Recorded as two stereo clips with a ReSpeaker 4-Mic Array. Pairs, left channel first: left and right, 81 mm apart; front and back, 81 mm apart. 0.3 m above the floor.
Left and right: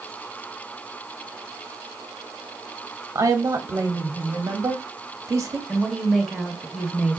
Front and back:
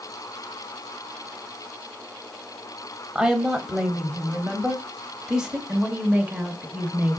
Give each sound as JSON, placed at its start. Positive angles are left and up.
{"t": 3.1, "sound": "a woman speaking", "azimuth_deg": -105, "distance_m": 1.1}
{"t": 5.7, "sound": "a woman speaking", "azimuth_deg": 175, "distance_m": 1.0}